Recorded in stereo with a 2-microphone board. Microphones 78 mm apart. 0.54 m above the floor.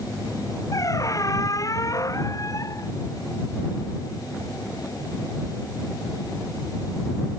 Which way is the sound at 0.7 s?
45° left (ahead or behind).